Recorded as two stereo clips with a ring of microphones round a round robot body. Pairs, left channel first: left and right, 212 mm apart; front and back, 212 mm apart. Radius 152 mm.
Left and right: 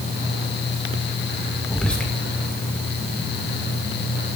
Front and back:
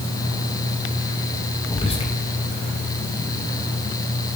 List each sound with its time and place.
1.7 s whispering: 10° left, 0.8 m